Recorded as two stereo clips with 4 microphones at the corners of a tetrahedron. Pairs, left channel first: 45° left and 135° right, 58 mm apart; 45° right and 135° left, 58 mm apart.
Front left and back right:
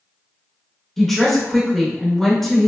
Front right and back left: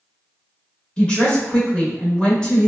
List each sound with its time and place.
1.0 s a woman speaking: 30° right, 0.9 m